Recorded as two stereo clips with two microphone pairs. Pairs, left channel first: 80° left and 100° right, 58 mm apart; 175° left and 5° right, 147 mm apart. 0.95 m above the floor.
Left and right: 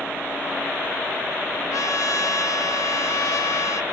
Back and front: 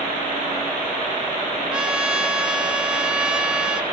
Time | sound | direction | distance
1.7 | a trumpet | 80° left | 1.1 m